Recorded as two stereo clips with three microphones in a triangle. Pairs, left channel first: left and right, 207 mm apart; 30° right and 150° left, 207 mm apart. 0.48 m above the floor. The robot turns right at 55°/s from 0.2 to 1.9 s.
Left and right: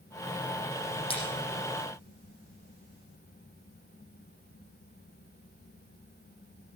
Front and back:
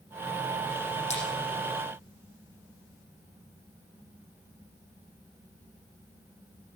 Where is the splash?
25° left, 7.5 m; by 1.2 s 35° left, 7.5 m.